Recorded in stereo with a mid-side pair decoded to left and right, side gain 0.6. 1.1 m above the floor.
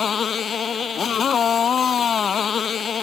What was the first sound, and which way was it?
A motorcycle, 35° left.